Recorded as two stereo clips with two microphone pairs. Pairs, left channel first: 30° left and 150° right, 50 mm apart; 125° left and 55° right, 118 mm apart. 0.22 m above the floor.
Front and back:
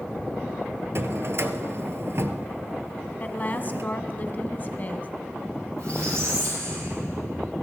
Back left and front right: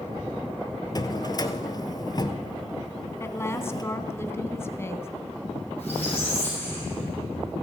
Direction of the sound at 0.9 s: Straight behind.